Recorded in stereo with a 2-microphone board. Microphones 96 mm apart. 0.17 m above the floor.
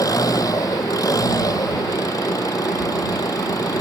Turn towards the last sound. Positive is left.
turn(degrees=40)  # may be behind; listen again after turning